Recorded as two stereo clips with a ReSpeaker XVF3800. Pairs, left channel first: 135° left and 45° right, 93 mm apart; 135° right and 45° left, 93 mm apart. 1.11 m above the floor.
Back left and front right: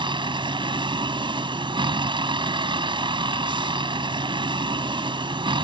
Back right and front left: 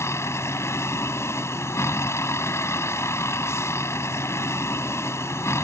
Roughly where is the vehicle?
Right.